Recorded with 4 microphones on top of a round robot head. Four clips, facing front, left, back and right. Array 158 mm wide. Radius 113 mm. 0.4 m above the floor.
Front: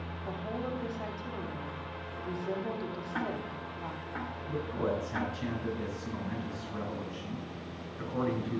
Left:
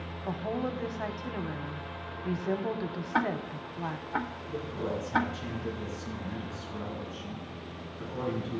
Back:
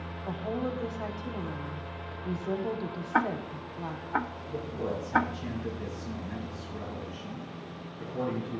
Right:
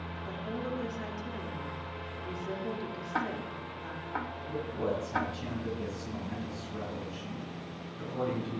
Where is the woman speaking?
105° left, 1.0 m.